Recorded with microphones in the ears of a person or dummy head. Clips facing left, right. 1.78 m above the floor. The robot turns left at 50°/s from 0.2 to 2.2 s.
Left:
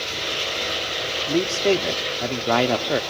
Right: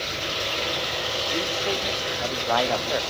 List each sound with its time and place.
1.3 s a man speaking: 90° left, 1.1 m; by 3.0 s 40° left, 1.1 m